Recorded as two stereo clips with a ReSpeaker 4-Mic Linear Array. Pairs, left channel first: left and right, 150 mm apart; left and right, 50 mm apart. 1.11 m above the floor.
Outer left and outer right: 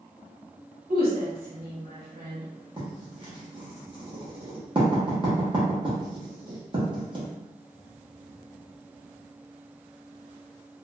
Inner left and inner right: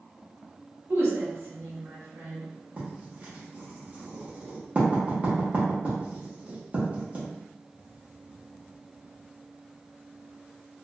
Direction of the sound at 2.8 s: 35° right (ahead or behind).